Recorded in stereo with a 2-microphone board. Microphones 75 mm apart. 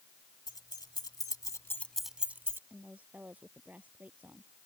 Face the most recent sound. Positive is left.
turn(degrees=-20)  # may be behind; listen again after turning